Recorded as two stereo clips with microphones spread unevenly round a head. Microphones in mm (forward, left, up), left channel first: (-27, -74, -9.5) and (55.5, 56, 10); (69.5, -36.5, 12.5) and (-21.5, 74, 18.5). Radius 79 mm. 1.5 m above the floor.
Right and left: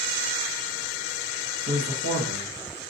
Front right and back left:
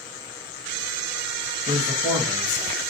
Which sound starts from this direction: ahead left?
A man speaking, at 1.7 s.